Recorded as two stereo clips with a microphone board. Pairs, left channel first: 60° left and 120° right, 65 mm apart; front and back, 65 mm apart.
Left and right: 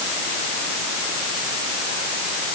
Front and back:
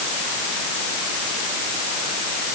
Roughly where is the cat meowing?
I don't hear a cat meowing.